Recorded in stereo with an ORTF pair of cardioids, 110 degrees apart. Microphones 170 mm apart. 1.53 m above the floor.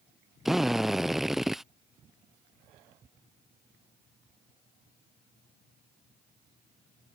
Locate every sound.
0.5 s a drill: straight ahead